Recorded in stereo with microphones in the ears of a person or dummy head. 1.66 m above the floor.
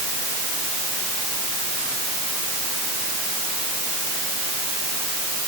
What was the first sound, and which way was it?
Only background noise.